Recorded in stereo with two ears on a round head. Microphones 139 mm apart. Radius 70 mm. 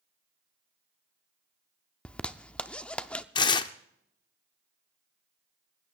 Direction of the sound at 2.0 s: 5° left (ahead or behind).